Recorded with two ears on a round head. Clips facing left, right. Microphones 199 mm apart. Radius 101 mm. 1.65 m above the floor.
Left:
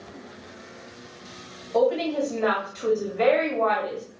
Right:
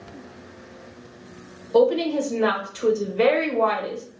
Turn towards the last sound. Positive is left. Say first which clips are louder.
# right 4 dB
turn(degrees=-60)  # may be behind; listen again after turning